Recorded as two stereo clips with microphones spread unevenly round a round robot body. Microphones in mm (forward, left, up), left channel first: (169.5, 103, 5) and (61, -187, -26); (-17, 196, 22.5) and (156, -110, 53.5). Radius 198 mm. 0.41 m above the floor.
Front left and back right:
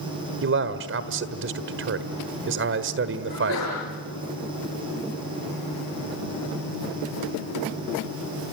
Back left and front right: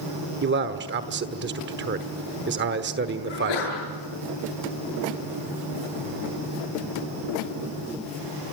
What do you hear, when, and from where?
0.4 s a man speaking: 115° right, 1.3 m
3.3 s a sneeze: 130° left, 7.5 m